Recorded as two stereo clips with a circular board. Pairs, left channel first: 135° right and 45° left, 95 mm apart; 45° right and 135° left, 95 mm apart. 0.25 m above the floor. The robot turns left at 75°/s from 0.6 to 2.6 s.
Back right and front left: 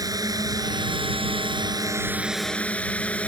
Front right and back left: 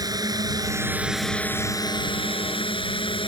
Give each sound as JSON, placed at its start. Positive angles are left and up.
{"t": 0.0, "sound": "a drone", "azimuth_deg": 90}